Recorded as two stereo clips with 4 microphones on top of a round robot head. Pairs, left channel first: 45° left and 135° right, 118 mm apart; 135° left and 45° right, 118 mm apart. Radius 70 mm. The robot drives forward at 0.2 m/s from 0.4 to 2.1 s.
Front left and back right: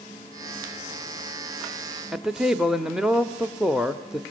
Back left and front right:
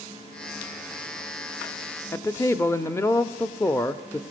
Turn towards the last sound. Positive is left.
turn(degrees=150)